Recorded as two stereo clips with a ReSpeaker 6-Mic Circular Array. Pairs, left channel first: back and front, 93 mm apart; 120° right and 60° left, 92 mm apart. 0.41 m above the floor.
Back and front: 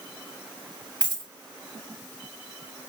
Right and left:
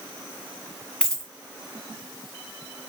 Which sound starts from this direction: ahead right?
A dropped coin, at 1.0 s.